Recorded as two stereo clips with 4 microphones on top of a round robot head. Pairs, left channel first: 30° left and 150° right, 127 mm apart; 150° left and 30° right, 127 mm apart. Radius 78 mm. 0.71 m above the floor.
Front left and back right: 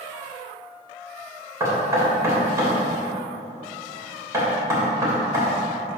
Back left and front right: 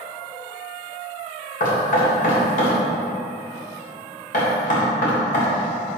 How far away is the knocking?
About 3 m.